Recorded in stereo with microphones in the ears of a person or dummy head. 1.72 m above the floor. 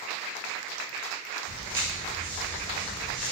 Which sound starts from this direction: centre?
Footsteps, at 1.5 s.